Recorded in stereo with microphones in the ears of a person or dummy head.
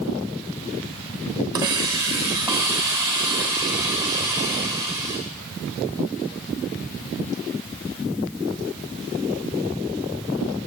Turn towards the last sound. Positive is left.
turn(degrees=-15)  # may be behind; listen again after turning